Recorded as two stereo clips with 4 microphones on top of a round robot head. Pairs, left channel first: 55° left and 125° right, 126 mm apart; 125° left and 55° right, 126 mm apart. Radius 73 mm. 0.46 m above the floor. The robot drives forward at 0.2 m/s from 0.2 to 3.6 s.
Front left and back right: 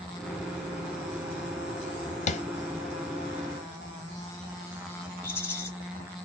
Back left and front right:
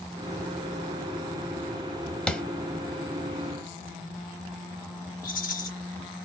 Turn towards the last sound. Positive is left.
turn(degrees=130)